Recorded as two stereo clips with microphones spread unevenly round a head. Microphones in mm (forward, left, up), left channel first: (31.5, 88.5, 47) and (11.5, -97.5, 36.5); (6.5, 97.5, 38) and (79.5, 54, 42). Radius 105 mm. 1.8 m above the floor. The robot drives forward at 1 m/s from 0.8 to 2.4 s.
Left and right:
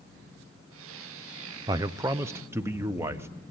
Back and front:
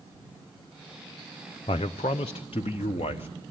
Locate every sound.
1.7 s a man speaking: 165° right, 0.6 m; by 3.3 s 175° right, 1.3 m